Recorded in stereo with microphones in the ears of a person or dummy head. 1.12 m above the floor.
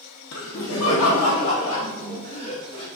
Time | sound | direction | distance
0.3 | laughter | 70° left (ahead or behind) | 1.2 m